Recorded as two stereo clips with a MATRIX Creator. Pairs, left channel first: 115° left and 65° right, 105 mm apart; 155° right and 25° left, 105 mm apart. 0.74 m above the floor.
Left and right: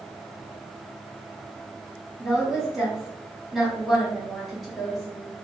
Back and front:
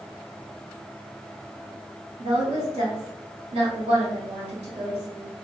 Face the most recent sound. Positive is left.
turn(degrees=25)